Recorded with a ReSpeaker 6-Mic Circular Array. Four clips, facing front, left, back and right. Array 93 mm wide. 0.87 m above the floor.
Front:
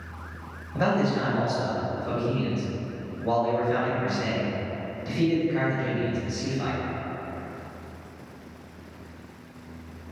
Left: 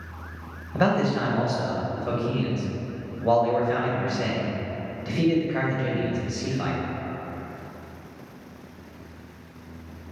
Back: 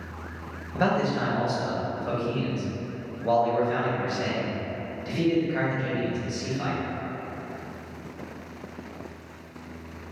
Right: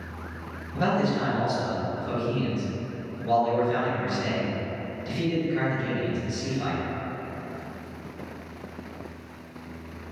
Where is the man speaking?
110° left, 1.1 m.